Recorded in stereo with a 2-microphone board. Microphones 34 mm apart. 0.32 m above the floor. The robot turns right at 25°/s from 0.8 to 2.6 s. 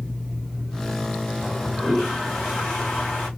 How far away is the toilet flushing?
About 3 m.